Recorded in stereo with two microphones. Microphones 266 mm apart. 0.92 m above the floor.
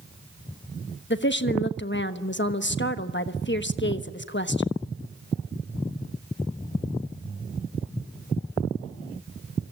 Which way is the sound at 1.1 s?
45° left (ahead or behind).